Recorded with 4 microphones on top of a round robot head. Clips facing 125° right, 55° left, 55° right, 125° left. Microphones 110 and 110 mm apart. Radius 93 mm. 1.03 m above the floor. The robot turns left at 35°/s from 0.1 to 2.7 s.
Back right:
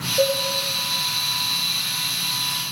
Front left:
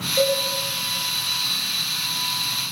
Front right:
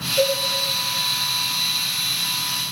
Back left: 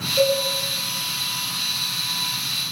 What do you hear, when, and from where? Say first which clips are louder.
0.2 s a cowbell: even, back left 1 dB; 60° left, 1.6 m; by 0.4 s 50° left, 1.6 m